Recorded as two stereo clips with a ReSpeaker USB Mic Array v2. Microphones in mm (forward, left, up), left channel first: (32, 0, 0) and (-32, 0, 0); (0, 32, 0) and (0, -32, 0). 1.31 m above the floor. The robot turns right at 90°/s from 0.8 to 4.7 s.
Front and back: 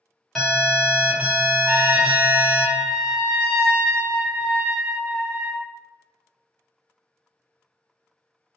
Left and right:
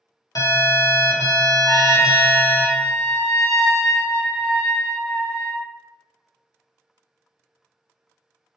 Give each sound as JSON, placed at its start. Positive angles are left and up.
{"t": 0.3, "sound": "an alarm", "azimuth_deg": 80, "distance_m": 0.9}
{"t": 1.7, "sound": "a trumpet", "azimuth_deg": 90, "distance_m": 0.8}